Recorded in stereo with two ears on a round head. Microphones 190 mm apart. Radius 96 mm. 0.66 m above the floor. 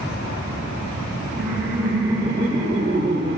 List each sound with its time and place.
1.4 s laughter: centre (ahead or behind), 3 m; by 3.4 s 45° right (ahead or behind), 3 m